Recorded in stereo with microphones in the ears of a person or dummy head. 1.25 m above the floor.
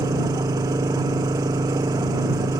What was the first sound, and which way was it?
An engine running, 20° right (ahead or behind).